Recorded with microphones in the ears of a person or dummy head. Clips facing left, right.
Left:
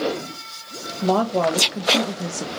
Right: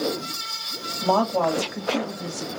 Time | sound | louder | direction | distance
1.0 | a woman speaking | left 2 dB | 15° left (ahead or behind) | 1.3 m